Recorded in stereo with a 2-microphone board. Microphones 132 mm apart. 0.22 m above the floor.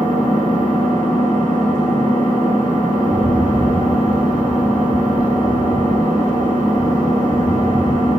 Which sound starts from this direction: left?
A rattle, at 3.0 s.